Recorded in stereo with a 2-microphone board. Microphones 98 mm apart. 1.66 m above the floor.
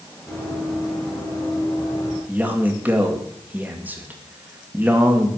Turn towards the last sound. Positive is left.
turn(degrees=-15)  # may be behind; listen again after turning